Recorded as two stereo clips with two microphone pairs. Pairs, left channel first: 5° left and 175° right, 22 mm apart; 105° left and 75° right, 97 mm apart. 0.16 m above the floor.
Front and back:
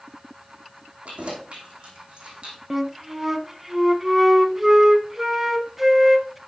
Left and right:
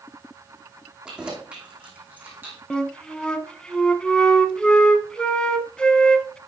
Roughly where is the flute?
Behind left.